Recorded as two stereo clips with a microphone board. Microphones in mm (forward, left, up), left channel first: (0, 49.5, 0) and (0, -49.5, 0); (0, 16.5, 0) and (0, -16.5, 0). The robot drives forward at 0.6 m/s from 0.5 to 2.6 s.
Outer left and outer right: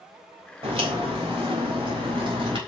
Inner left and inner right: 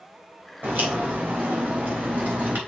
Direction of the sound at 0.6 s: 75° right (ahead or behind).